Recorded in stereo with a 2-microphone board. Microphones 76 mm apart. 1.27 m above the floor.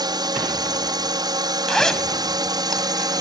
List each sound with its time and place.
0.0 s a drone: 60° right (ahead or behind)
1.7 s a zipper: 10° left (ahead or behind)